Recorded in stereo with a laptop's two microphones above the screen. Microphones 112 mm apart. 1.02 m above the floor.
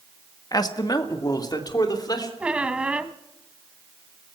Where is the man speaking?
40° left (ahead or behind), 1.5 m.